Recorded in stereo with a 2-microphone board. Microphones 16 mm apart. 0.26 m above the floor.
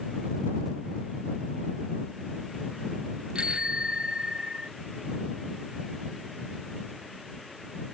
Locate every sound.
3.4 s a bicycle bell: 85° right